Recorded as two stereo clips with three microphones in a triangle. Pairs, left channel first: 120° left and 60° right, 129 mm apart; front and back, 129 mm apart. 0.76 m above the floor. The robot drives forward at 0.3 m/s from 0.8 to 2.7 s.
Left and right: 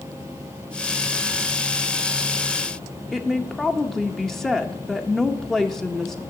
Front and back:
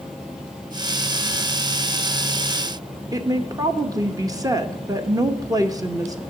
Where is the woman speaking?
155° right, 0.7 m.